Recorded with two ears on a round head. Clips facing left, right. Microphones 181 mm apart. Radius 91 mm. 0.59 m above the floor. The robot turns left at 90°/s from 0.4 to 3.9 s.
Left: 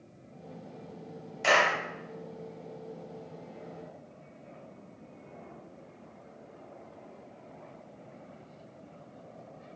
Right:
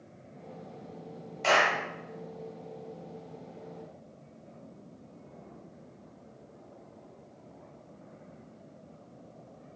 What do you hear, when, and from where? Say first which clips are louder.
1.4 s a clap: even; 10° left (ahead or behind), 2.5 m; by 1.8 s 40° left (ahead or behind), 2.5 m